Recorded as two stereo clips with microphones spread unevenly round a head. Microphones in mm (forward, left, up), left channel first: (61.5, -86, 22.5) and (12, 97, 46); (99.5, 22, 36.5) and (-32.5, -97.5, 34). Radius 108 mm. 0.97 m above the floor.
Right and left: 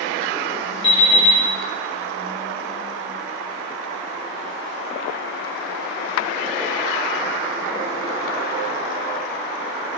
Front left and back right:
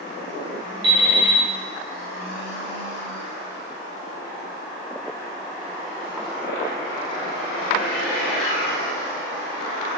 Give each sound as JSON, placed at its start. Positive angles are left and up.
{"t": 0.8, "sound": "an alarm clock", "azimuth_deg": -115, "distance_m": 1.5}